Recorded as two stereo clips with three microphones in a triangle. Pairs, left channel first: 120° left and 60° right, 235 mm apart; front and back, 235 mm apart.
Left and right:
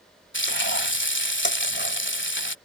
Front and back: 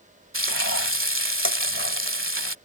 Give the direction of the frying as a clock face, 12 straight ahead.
7 o'clock.